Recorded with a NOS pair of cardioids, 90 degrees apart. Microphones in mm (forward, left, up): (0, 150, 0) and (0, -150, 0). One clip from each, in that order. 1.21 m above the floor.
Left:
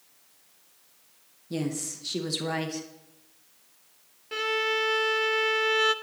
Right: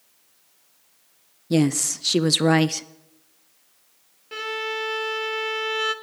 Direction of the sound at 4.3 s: Straight ahead.